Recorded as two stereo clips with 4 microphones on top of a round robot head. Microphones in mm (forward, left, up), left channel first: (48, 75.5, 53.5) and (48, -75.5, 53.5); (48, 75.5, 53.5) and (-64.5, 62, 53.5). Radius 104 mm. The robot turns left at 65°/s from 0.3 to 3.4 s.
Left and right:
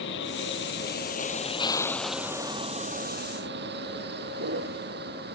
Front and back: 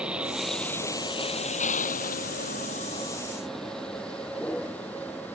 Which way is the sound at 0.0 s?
105° left.